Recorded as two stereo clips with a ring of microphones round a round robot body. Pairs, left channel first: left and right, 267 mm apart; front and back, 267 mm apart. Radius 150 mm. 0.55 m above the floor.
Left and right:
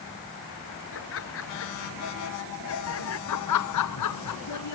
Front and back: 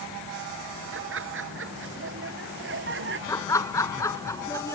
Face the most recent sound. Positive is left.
turn(degrees=80)